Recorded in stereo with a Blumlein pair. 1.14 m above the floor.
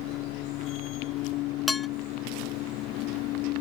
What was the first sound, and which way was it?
A machine running, 40° left.